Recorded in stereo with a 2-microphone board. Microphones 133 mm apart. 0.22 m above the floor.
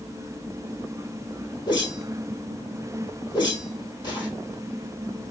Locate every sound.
1.7 s a whoosh: 35° left (ahead or behind), 1.7 m